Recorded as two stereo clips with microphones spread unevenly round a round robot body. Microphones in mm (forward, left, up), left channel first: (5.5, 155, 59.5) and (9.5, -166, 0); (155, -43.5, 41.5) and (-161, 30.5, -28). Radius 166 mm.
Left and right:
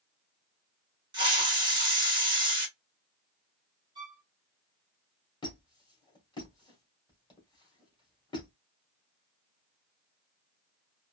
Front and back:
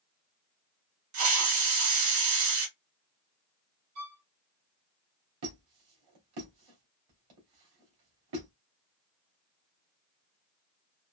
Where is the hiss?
165° right, 1.5 m.